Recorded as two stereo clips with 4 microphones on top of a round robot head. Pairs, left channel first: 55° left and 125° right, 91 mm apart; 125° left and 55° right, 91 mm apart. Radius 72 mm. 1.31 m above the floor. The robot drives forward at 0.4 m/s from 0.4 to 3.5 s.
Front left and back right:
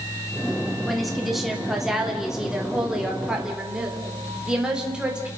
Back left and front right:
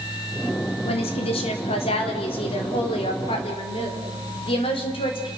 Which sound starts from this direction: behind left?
A woman speaking, at 0.8 s.